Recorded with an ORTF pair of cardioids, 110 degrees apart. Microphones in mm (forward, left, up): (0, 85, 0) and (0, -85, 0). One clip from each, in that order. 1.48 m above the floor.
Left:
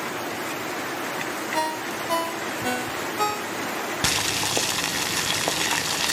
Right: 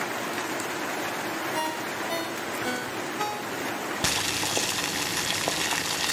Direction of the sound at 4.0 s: 15° left.